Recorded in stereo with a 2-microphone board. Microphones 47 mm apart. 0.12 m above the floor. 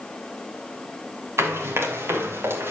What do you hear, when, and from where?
1.4 s running footsteps: 75° right (ahead or behind), 5 m; by 2.7 s 70° right (ahead or behind), 5 m